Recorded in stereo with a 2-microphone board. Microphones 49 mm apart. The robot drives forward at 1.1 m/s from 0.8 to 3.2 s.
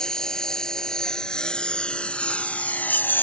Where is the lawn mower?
15° left (ahead or behind); by 3.2 s 45° left (ahead or behind).